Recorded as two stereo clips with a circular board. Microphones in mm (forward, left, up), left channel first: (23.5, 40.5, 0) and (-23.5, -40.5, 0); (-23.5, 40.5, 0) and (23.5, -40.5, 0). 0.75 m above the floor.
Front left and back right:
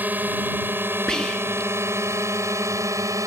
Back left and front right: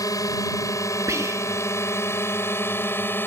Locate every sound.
0.0 s a drone: 170° left; by 3.3 s 175° right
1.1 s whispering: 20° right